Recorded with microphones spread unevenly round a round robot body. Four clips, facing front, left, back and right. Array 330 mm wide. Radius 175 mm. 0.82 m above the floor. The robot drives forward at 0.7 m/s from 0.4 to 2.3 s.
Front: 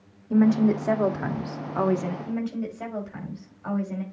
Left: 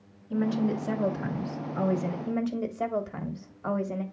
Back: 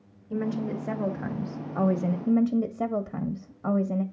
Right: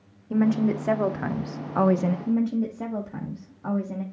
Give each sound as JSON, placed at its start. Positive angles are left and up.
{"t": 0.3, "sound": "a woman speaking", "azimuth_deg": -35, "distance_m": 1.9}
{"t": 2.3, "sound": "a woman speaking", "azimuth_deg": -165, "distance_m": 1.4}